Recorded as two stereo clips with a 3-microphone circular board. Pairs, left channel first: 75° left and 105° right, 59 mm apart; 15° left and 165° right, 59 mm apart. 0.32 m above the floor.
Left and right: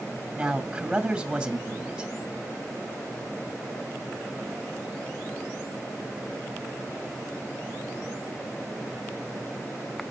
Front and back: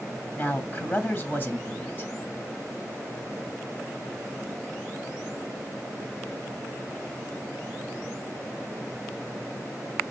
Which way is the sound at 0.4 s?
30° right.